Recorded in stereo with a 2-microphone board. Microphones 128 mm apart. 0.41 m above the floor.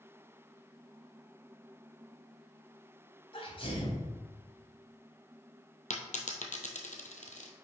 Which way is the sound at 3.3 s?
45° left (ahead or behind).